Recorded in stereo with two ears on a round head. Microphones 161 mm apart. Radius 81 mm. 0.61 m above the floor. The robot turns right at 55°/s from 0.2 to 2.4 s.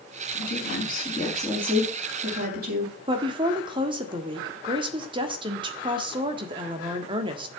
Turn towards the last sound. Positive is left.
turn(degrees=-25)  # may be behind; listen again after turning